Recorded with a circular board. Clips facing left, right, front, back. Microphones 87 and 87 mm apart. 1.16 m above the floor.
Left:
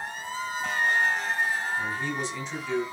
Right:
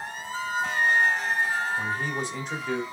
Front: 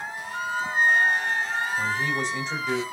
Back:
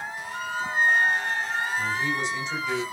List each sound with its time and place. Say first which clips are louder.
0.3 s a flute: right 3 dB, front 1 dB; 70° right, 5 m
1.8 s a man speaking: right 1 dB, front 1 dB; 45° right, 4.5 m